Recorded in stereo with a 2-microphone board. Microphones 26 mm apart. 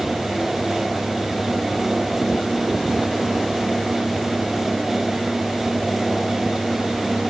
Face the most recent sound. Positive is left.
No sound to turn to.